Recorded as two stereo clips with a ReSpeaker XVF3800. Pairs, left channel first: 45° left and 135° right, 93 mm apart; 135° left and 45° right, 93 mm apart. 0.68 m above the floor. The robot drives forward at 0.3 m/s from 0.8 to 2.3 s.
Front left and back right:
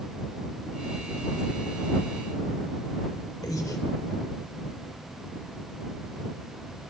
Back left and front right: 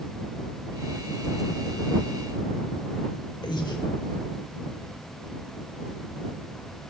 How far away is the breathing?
About 0.9 m.